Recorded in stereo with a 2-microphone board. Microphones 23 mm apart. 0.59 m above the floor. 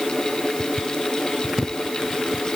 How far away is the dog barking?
No dog barking in this recording.